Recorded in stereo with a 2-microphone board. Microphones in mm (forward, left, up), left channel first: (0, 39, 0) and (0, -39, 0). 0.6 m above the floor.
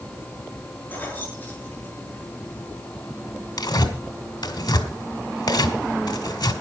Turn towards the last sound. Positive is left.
turn(degrees=70)  # may be behind; listen again after turning